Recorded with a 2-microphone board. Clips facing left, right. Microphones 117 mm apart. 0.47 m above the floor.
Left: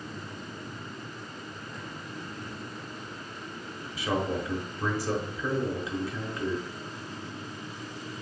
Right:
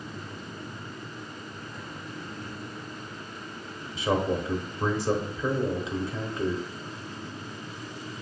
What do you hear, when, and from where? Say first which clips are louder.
4.0 s a man speaking: right 3 dB; 25° right (ahead or behind), 0.9 m